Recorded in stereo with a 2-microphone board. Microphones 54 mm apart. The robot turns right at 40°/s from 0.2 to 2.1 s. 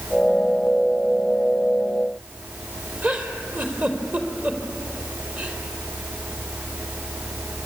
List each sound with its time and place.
3.0 s a giggle: 35° right (ahead or behind), 3 m